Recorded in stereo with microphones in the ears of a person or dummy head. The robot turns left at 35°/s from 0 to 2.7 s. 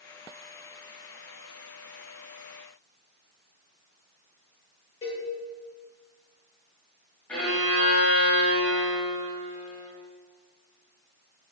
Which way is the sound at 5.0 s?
30° left (ahead or behind).